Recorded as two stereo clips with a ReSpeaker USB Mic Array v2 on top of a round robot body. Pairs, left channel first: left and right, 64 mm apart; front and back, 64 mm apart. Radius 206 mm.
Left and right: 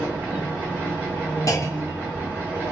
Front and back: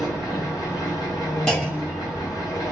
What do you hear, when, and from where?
0.0 s an engine running: 25° right, 1.1 m
1.5 s a clunk: 75° left, 1.1 m